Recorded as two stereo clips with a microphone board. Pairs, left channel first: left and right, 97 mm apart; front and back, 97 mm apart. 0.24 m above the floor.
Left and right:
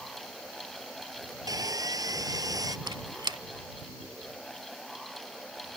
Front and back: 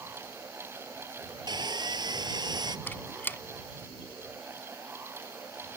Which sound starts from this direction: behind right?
Sawing, at 1.5 s.